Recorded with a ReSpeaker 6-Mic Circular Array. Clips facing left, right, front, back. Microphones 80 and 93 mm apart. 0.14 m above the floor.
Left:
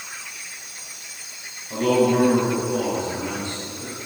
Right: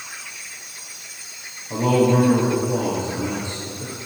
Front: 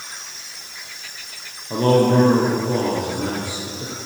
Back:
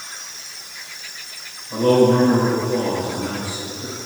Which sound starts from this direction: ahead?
A man speaking, at 1.7 s.